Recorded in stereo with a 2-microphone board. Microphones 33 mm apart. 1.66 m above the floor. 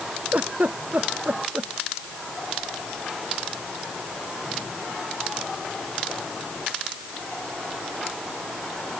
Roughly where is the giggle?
Right.